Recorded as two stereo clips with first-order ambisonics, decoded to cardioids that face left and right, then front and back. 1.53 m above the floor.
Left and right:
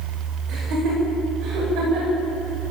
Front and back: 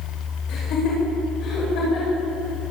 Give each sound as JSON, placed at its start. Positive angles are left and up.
{"t": 0.5, "sound": "laughter", "azimuth_deg": -45, "distance_m": 7.5}